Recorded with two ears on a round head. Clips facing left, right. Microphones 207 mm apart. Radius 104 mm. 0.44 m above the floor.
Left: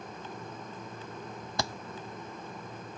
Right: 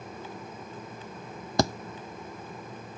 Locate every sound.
1.6 s a thud: 40° right (ahead or behind)